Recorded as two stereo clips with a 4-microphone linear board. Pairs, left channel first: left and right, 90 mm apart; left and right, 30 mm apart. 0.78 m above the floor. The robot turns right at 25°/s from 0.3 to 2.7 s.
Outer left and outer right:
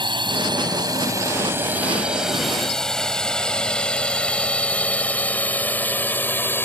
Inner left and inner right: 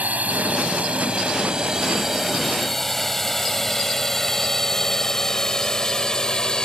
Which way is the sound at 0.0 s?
60° right (ahead or behind).